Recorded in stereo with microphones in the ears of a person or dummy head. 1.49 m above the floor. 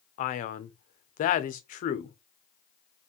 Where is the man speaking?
40° left (ahead or behind), 0.7 m.